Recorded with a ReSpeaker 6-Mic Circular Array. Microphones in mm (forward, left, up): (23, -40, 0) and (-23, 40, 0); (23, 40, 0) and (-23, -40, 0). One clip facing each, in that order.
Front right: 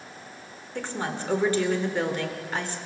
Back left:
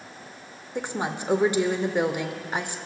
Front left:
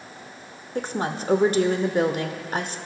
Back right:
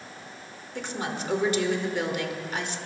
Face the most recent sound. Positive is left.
turn(degrees=55)